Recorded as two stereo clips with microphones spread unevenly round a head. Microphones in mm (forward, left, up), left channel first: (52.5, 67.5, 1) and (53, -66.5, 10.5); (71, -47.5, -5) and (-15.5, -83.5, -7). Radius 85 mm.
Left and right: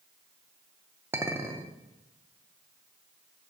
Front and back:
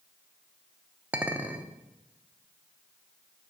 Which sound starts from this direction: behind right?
A clink, at 1.1 s.